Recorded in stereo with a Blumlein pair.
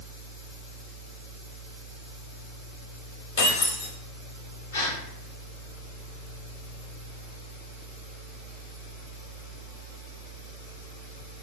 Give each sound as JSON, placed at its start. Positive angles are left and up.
{"t": 0.0, "sound": "a fan", "azimuth_deg": 60, "distance_m": 2.0}
{"t": 3.4, "sound": "breaking glass", "azimuth_deg": 50, "distance_m": 1.7}
{"t": 4.7, "sound": "a gasp", "azimuth_deg": 60, "distance_m": 2.5}